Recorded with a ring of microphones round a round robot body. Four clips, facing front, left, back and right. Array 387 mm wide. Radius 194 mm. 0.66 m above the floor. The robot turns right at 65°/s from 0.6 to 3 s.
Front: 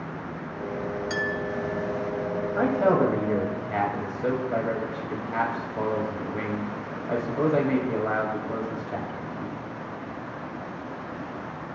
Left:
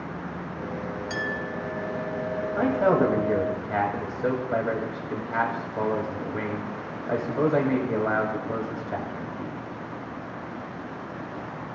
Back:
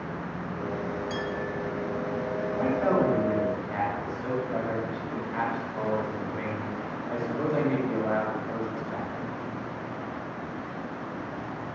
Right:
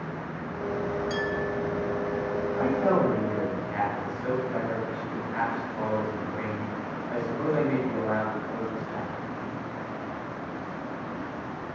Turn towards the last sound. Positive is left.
turn(degrees=60)